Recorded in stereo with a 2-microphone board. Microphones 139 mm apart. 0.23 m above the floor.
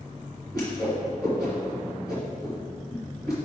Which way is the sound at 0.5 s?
25° left (ahead or behind).